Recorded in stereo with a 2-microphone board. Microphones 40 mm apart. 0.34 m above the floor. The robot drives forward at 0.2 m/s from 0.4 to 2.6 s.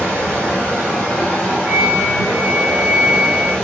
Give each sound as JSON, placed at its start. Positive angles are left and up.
{"t": 0.0, "sound": "running water", "side_deg": 20, "distance_m": 3.0}
{"t": 1.7, "sound": "a flute", "side_deg": -25, "distance_m": 0.8}